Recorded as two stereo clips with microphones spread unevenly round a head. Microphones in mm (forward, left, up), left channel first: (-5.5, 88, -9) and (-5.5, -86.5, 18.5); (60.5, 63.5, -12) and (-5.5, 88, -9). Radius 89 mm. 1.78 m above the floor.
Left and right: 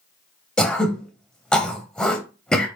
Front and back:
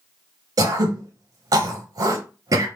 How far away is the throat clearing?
About 0.7 m.